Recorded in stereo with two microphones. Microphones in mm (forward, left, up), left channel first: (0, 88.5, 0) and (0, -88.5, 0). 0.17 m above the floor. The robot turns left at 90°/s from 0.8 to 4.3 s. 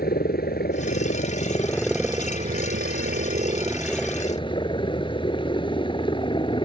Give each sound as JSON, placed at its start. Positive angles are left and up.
{"t": 0.0, "sound": "a helicopter", "azimuth_deg": 105}